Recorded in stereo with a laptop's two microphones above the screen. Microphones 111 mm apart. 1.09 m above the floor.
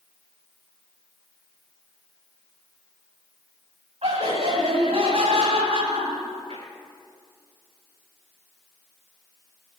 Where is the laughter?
75° right (ahead or behind), 7.5 m; by 6.6 s 70° right (ahead or behind), 9 m.